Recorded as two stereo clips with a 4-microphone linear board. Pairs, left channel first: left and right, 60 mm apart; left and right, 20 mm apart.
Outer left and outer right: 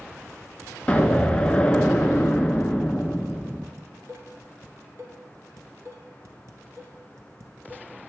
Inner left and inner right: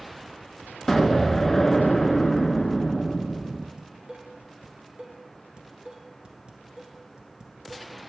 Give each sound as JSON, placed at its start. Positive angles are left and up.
{"t": 0.9, "sound": "an explosion", "side_deg": 20, "distance_m": 0.7}
{"t": 3.8, "sound": "dishes clattering", "side_deg": -55, "distance_m": 1.4}